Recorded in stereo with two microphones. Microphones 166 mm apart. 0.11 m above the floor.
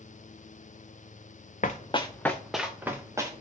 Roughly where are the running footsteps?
Left.